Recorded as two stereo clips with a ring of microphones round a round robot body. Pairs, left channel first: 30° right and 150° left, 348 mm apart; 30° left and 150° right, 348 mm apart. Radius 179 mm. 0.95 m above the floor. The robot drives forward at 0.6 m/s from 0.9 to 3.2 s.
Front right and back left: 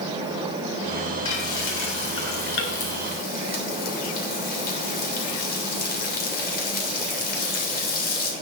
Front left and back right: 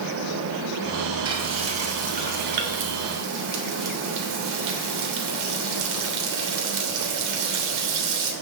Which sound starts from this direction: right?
Frying, at 1.2 s.